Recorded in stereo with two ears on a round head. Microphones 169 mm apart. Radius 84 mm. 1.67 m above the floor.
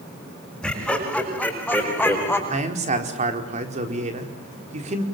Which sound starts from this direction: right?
A man speaking, at 2.5 s.